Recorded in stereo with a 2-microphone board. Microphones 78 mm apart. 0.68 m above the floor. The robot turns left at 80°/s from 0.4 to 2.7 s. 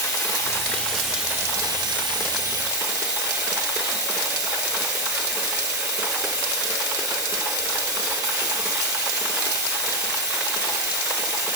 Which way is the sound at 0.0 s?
45° left.